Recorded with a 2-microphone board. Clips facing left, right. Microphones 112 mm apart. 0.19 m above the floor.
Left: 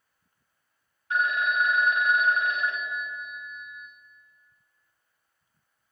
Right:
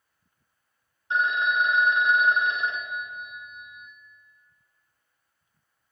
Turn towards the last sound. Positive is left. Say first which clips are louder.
# right 1 dB
turn(degrees=-25)  # may be behind; listen again after turning